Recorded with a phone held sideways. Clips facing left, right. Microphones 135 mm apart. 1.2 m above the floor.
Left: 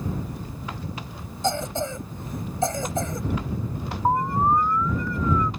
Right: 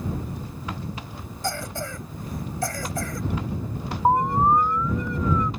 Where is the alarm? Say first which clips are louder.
Right 2 dB; 20° right (ahead or behind).